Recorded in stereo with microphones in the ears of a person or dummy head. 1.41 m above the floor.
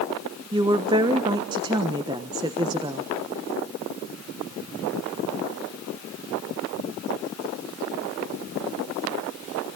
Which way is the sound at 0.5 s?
20° right (ahead or behind).